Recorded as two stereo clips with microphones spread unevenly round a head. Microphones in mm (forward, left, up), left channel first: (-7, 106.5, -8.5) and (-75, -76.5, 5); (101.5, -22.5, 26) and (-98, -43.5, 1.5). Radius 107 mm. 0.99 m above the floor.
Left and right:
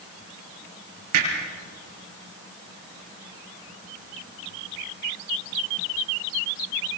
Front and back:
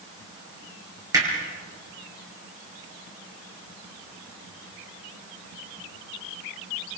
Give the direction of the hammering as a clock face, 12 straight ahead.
3 o'clock.